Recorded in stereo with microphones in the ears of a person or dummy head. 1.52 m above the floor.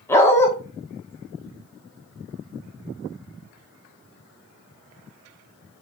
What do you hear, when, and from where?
0.1 s a dog barking: 15° left (ahead or behind), 1.4 m